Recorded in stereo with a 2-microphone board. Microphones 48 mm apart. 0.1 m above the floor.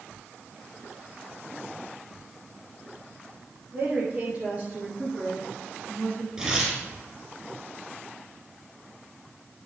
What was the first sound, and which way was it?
A woman speaking, 35° right (ahead or behind).